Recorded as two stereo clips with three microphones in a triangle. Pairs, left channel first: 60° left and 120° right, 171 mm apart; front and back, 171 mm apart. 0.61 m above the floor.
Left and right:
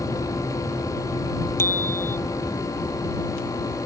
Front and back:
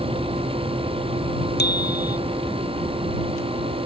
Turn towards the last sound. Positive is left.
turn(degrees=-15)